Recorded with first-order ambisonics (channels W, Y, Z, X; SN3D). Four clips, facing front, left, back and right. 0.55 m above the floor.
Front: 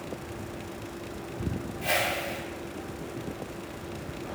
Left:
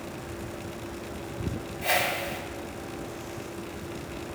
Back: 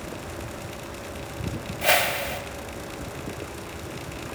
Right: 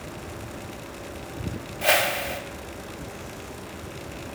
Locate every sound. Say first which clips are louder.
1.8 s a whoosh: right 5 dB, back 6 dB; 130° right, 0.5 m